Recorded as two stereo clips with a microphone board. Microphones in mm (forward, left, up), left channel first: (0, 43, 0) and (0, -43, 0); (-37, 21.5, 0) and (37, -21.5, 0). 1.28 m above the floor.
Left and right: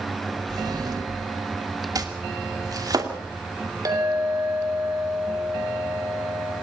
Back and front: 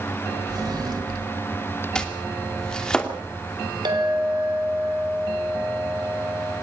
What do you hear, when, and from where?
0.5 s a drawer: 60° right, 2.5 m
1.9 s chopping: 130° right, 2.5 m
3.9 s a clink: 45° right, 3.5 m